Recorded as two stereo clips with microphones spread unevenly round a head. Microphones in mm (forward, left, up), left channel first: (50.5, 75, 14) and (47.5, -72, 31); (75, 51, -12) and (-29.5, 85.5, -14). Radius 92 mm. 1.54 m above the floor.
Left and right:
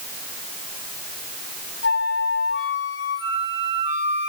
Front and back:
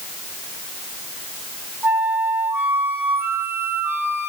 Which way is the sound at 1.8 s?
95° left.